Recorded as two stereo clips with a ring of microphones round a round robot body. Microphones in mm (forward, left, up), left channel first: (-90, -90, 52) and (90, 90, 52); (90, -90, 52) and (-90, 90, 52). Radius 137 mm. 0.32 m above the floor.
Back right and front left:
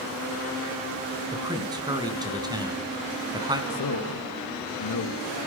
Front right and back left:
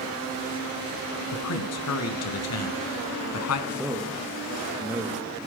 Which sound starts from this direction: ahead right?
A man speaking, at 1.3 s.